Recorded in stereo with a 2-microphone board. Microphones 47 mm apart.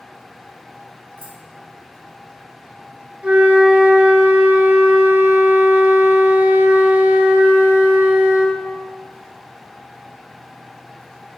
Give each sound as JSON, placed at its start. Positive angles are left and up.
{"t": 1.2, "sound": "keys jangling", "side_deg": -50, "distance_m": 2.0}
{"t": 3.2, "sound": "a flute", "side_deg": -30, "distance_m": 0.8}